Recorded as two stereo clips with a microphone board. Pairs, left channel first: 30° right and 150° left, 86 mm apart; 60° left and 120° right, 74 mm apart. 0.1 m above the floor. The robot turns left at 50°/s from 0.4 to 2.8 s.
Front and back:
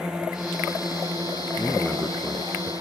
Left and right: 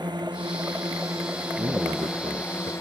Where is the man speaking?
100° right; by 2.7 s 160° right.